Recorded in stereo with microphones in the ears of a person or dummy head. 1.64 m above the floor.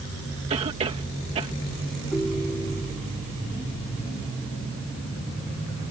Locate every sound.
0.5 s a cough: 40° right (ahead or behind)
2.1 s a ringtone: 10° left (ahead or behind)